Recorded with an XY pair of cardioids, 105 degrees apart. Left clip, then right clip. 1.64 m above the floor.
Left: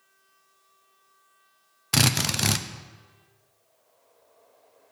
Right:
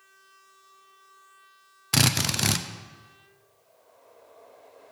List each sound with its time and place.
1.9 s a drill: 5° left, 0.5 m